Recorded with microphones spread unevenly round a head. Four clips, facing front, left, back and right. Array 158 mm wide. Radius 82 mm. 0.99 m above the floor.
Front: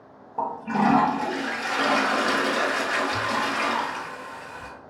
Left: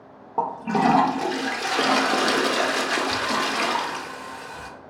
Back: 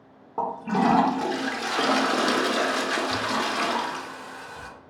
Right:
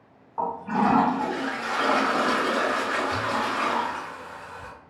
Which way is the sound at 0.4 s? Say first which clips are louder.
Left 2 dB, even; 115° left.